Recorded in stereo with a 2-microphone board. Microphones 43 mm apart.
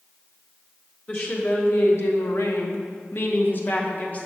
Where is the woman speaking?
40° left (ahead or behind), 1.3 m; by 4.3 s 35° left (ahead or behind), 1.4 m.